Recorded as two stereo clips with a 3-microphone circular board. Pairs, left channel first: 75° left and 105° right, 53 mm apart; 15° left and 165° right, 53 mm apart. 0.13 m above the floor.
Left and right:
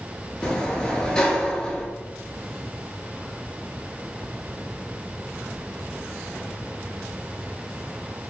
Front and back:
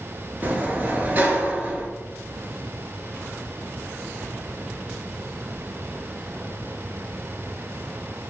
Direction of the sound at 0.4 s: 150° left.